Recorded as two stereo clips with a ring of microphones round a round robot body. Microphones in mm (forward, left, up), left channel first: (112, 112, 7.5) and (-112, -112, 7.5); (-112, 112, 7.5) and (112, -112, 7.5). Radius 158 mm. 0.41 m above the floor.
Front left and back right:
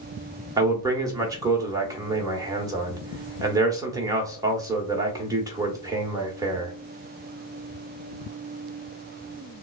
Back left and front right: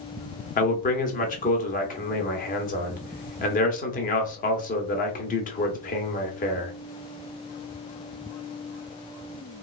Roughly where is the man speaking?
Behind.